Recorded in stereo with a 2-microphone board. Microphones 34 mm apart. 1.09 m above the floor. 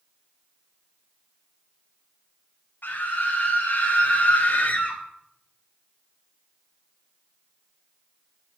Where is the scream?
60° left (ahead or behind), 4.5 m; by 5.0 s 50° left (ahead or behind), 3.5 m.